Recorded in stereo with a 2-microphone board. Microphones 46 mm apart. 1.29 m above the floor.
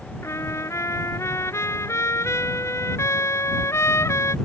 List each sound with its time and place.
0.2 s a trumpet: 85° left